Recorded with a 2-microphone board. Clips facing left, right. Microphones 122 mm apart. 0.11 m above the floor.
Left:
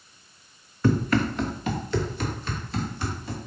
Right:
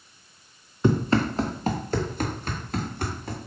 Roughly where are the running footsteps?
Right.